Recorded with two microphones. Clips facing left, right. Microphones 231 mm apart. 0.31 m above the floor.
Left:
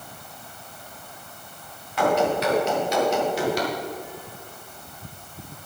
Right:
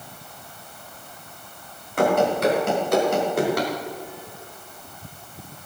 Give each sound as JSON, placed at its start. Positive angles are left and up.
{"t": 2.0, "sound": "running footsteps", "side_deg": -50, "distance_m": 8.0}